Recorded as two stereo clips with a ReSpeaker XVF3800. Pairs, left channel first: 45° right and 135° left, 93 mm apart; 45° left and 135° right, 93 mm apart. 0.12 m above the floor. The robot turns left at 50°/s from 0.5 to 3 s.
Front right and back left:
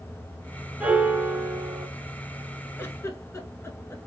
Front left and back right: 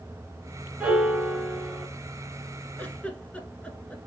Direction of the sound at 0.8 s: 170° left.